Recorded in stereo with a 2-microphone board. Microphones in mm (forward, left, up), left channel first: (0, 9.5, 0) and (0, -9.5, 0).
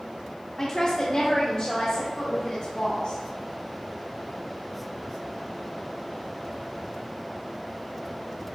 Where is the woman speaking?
35° left (ahead or behind), 0.9 m; by 3.2 s 80° left, 3.5 m.